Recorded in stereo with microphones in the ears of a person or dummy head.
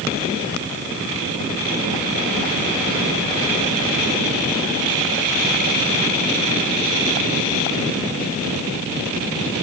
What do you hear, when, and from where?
Only background noise.